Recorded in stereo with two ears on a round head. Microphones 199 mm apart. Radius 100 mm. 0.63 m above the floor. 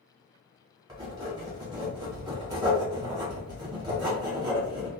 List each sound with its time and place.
0.9 s writing: 20° right (ahead or behind), 1.4 m